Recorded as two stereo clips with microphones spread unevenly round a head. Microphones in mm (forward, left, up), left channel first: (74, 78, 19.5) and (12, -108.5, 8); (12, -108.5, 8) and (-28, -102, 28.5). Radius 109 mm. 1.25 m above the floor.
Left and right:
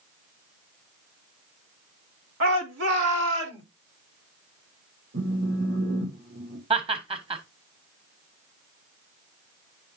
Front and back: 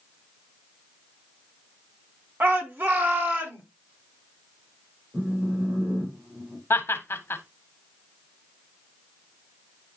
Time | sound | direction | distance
2.4 | a shout | 150° right | 2 m
5.1 | a phone buzzing | 155° right | 2 m
6.7 | laughter | 45° right | 1.3 m